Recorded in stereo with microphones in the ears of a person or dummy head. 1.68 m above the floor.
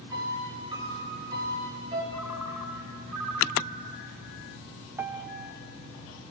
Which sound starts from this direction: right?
A piano, at 0.1 s.